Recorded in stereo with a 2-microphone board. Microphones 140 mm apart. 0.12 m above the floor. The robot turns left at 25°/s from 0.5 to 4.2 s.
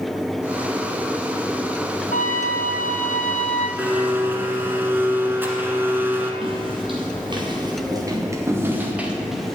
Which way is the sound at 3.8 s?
10° right (ahead or behind).